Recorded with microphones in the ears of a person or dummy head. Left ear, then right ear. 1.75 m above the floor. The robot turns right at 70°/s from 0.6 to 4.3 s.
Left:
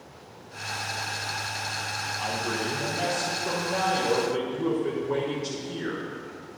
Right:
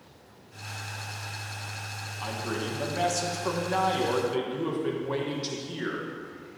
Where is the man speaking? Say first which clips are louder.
Left 1 dB; 175° left, 1.2 m; by 6.6 s 35° right, 1.2 m.